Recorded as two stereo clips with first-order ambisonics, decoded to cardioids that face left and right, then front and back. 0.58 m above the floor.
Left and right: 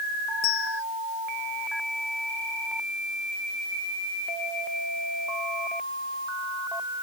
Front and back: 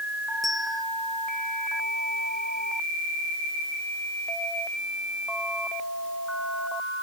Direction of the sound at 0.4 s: 80° left.